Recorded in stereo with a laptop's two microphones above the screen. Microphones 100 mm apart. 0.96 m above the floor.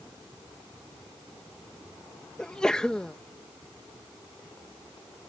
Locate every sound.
2.4 s a sneeze: 5° left (ahead or behind)